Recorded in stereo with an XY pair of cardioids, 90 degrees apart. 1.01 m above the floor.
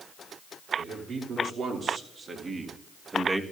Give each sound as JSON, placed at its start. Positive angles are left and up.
{"t": 0.8, "sound": "a man speaking", "azimuth_deg": -70, "distance_m": 3.5}